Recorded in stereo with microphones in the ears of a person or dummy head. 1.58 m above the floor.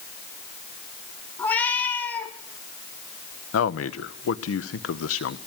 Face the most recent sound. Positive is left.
turn(degrees=80)